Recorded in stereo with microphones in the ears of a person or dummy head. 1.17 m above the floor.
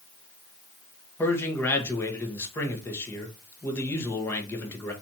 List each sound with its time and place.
1.2 s a man speaking: 15° left (ahead or behind), 1.4 m